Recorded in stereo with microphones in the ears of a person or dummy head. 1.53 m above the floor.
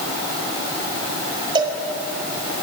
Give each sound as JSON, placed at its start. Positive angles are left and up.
{"t": 1.6, "sound": "a cowbell", "side_deg": -30, "distance_m": 4.0}